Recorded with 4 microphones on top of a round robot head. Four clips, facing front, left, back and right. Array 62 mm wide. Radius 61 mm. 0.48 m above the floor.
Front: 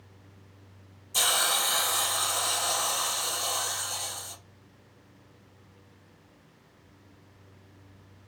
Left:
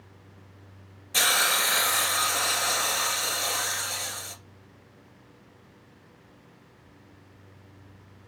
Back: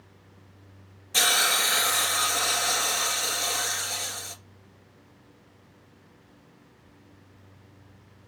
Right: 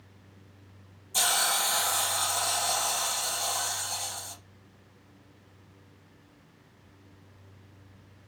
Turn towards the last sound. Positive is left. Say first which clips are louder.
# left 4 dB, back 4 dB
turn(degrees=130)